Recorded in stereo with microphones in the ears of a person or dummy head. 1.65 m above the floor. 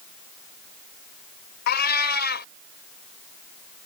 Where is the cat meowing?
50° left (ahead or behind).